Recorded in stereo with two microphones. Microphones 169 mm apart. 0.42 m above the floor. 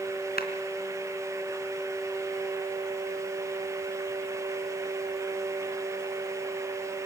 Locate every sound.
0.4 s a clap: 65° left (ahead or behind), 3 m